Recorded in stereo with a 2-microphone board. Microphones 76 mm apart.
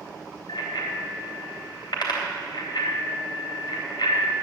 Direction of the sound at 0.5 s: 70° left (ahead or behind).